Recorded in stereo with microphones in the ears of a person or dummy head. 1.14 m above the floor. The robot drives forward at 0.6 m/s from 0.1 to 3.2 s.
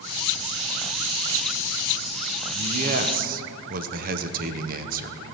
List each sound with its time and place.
2.5 s a man speaking: 35° right (ahead or behind), 0.8 m; by 5.3 s 45° right (ahead or behind), 0.7 m